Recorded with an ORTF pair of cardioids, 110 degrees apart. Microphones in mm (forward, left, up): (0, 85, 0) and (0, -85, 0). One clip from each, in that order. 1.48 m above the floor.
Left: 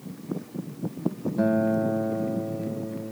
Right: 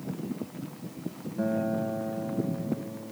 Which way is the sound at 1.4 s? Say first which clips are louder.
Left 5 dB; 35° left.